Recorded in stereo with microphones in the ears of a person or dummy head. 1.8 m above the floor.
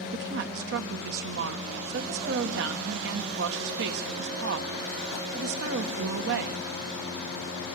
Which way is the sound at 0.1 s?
70° right (ahead or behind).